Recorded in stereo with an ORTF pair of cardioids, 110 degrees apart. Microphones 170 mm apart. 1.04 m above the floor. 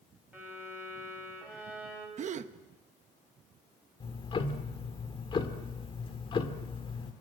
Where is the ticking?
30° left, 2.0 m.